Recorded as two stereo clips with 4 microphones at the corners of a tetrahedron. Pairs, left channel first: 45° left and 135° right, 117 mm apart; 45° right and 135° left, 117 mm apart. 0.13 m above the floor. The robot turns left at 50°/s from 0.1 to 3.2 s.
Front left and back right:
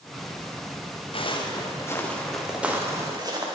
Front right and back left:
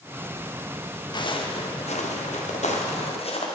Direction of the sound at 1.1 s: 5° left.